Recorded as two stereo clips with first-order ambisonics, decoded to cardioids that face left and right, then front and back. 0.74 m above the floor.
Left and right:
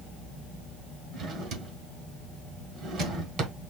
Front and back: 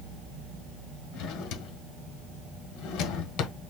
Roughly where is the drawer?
Ahead right.